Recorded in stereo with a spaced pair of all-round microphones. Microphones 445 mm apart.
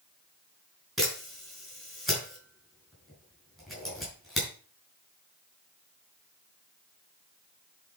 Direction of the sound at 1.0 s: Centre (ahead or behind).